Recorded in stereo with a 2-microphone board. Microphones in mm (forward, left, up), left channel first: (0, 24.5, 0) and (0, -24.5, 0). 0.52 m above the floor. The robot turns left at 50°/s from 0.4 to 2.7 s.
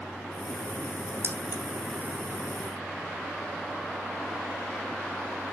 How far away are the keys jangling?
About 1.7 m.